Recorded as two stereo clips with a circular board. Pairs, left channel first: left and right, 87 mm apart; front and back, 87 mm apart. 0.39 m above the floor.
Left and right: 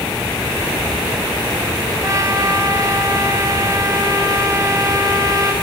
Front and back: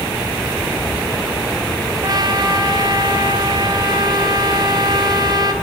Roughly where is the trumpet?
Behind right.